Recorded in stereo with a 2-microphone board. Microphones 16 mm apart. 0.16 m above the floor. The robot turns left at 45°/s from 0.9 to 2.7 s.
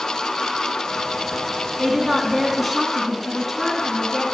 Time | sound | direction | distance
1.8 | a woman speaking | 140° right | 1.8 m